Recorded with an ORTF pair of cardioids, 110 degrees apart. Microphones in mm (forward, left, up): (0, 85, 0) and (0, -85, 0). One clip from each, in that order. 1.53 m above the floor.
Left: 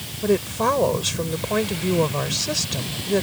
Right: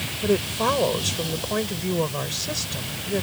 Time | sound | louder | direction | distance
0.2 | a woman speaking | left 2 dB | 10° left | ?